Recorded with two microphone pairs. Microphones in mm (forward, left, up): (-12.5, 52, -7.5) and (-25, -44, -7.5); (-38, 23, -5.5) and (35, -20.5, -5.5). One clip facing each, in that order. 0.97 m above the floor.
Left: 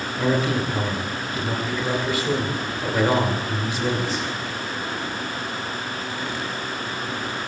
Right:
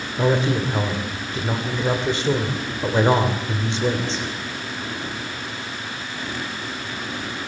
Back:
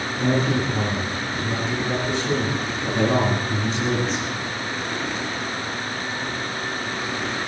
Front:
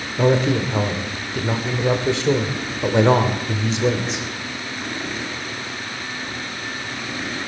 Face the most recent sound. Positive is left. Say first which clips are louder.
# right 2 dB, front 4 dB
turn(degrees=-35)